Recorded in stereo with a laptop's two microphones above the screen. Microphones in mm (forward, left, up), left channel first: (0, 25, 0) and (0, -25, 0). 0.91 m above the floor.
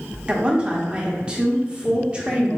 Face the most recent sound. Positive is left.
turn(degrees=-20)  # may be behind; listen again after turning